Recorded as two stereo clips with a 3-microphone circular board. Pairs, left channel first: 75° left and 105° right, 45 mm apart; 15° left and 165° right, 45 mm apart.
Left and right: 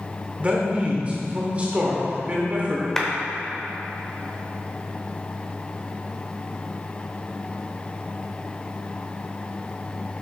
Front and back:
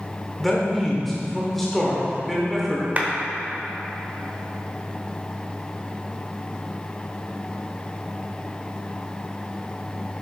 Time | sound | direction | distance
0.4 | a man speaking | 70° right | 1.2 m
3.0 | a clap | 150° left | 1.1 m